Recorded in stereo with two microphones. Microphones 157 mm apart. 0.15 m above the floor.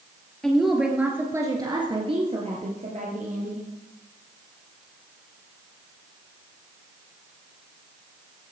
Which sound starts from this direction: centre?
A woman speaking, at 0.4 s.